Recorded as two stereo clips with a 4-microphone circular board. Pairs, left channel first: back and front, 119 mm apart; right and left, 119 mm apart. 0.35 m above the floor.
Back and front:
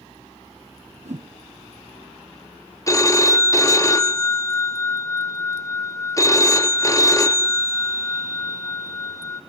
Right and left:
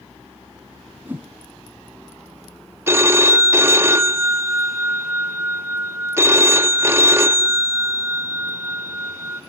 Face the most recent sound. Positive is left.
turn(degrees=145)